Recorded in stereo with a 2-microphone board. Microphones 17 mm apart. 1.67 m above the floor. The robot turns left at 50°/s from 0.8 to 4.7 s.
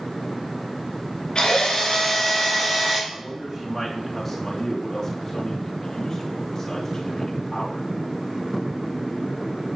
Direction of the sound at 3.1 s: 130° right.